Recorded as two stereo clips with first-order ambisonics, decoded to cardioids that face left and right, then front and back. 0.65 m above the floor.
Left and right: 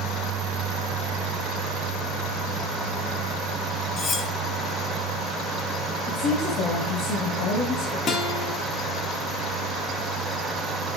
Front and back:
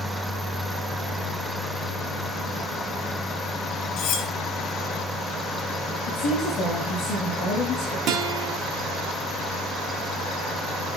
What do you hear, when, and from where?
4.0 s cutlery clinking: 35° left, 1.2 m
6.0 s a woman speaking: 55° left, 3 m
8.1 s a guitar: 145° left, 1.1 m